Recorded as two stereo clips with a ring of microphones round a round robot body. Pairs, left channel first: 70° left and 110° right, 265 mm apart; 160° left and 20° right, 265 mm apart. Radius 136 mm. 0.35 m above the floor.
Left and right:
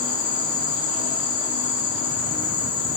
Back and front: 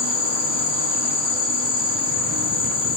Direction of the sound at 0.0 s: 10° left.